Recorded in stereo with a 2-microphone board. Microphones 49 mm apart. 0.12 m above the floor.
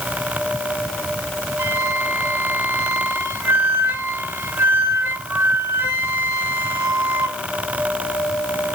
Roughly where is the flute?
Right.